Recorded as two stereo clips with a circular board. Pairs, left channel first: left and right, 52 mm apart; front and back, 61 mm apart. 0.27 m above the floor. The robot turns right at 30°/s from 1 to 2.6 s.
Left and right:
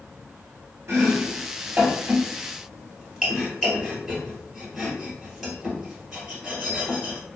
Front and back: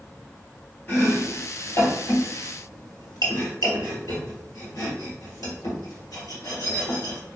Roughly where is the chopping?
Ahead right.